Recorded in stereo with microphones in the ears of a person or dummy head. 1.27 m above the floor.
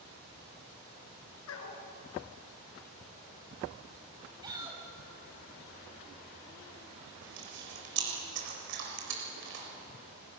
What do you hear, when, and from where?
1.5 s a dog barking: 75° left (ahead or behind), 4.5 m
4.4 s a shout: 20° right (ahead or behind), 9 m
7.2 s chewing: 65° right (ahead or behind), 6.5 m